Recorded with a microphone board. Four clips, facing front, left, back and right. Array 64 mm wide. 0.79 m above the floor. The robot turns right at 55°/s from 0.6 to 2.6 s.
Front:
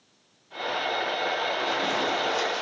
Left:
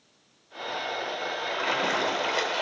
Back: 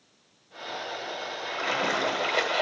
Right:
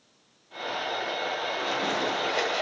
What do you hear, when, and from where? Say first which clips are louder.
1.5 s a splash: left 5 dB, front 1 dB; 105° left, 1.1 m; by 2.6 s 170° left, 1.1 m